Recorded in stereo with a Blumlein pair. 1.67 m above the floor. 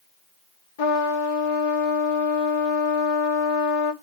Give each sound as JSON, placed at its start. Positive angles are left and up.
{"t": 0.8, "sound": "a trumpet", "azimuth_deg": 50, "distance_m": 1.2}